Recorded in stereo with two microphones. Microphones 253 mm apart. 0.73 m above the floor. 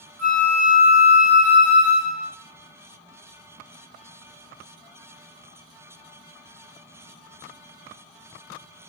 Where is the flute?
5° left (ahead or behind), 2.5 m.